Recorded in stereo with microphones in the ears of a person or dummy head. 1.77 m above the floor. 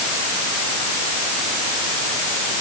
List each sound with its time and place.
Only background noise.